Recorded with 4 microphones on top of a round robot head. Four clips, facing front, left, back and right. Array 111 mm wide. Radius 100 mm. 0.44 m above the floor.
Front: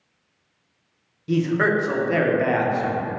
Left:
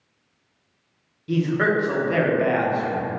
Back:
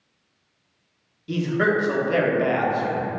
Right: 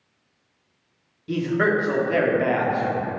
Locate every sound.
1.3 s a man speaking: 5° right, 0.8 m